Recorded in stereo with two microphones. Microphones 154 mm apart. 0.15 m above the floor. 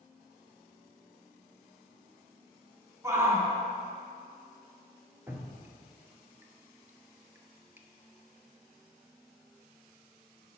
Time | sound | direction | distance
3.0 | a shout | 15° right (ahead or behind) | 1.2 m
5.3 | dripping | 15° right (ahead or behind) | 0.6 m